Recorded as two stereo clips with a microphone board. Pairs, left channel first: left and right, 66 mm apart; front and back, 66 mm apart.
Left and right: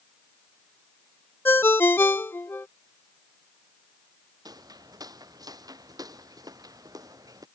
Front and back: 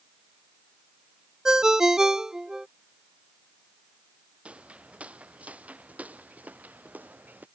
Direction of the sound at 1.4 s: 105° left.